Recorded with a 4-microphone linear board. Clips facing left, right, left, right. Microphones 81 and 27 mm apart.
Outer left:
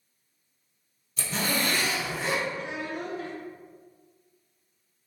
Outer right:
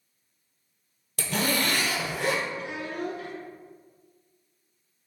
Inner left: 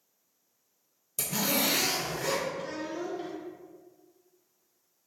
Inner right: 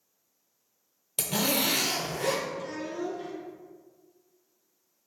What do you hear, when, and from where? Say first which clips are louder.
1.2 s a zipper: outer right 2 dB, inner right 2 dB; 75° right (ahead or behind), 0.6 m
2.6 s a child speaking: outer right 1 dB, inner right 1 dB; 30° left (ahead or behind), 1.0 m